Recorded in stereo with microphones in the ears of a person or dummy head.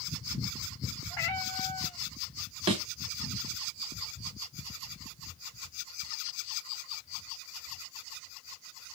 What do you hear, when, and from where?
1.1 s a cat meowing: 10° left (ahead or behind), 0.8 m
2.7 s a thud: 30° right (ahead or behind), 2 m